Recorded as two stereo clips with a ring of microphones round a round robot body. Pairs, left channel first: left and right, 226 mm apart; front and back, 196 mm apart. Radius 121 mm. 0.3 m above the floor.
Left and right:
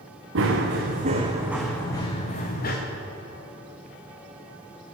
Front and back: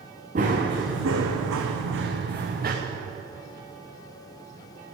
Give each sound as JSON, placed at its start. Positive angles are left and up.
{"t": 0.3, "sound": "running footsteps", "azimuth_deg": -125, "distance_m": 2.5}